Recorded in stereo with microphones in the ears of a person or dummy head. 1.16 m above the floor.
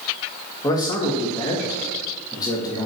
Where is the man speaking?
20° left (ahead or behind), 0.7 m.